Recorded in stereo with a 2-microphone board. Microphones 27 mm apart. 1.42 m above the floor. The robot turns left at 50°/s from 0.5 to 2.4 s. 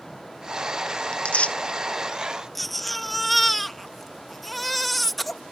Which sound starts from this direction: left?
Tearing paper, at 1.1 s.